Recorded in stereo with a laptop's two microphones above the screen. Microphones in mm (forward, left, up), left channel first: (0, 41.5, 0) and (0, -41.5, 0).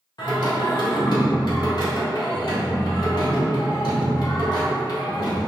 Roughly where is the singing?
Left.